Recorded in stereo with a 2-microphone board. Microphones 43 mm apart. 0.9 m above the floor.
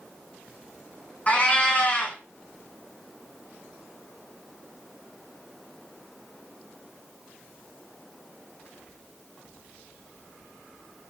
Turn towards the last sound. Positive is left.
turn(degrees=35)  # may be behind; listen again after turning